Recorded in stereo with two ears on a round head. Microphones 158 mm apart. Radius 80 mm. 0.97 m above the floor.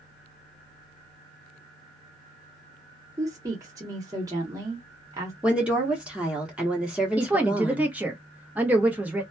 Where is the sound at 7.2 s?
10° right (ahead or behind), 0.7 m.